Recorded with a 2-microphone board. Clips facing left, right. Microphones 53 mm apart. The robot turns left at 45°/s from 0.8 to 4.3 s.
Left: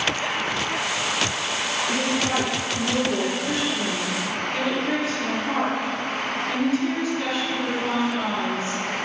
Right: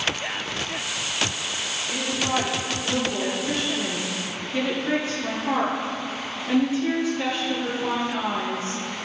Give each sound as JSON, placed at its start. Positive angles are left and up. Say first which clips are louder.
{"t": 1.9, "sound": "a woman speaking", "louder": "left 1 dB", "azimuth_deg": 80, "distance_m": 4.5}